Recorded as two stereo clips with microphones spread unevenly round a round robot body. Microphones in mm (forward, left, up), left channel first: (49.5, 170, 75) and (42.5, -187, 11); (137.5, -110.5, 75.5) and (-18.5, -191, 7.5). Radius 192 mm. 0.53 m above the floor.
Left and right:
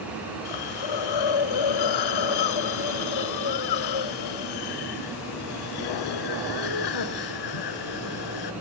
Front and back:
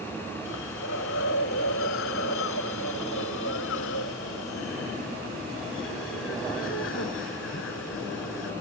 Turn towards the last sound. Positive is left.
turn(degrees=70)